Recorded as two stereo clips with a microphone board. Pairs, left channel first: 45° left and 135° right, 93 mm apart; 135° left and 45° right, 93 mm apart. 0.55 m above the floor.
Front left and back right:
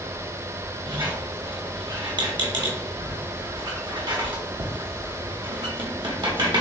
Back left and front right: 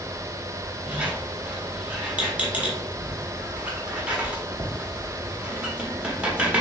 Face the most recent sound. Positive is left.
turn(degrees=-120)